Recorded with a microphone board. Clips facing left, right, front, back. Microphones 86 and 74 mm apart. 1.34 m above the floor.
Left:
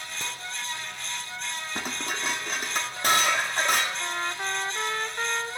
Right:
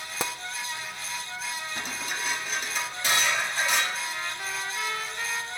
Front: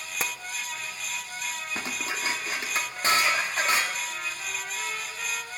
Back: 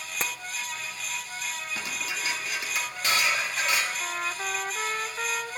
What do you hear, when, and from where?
0.2 s tapping: 85° right, 0.5 m
1.8 s dishes clattering: 55° left, 1.7 m
4.0 s a trumpet: 140° left, 0.6 m